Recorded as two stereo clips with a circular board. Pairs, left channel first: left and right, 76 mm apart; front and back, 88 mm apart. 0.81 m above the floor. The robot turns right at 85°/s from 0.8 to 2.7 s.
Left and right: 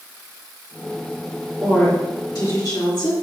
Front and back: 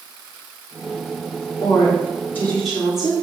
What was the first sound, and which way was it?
A woman speaking, straight ahead.